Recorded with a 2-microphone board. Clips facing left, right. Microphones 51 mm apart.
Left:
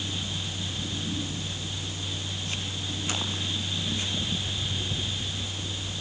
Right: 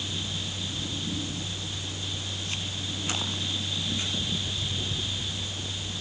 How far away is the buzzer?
I don't hear a buzzer.